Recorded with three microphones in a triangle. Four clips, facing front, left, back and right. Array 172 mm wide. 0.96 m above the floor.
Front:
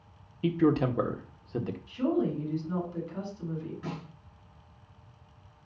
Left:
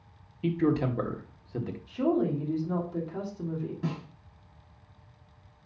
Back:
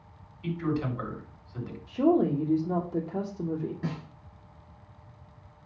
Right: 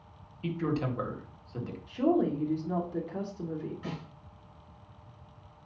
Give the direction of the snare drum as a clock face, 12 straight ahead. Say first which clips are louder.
Left 5 dB, back 3 dB; 8 o'clock.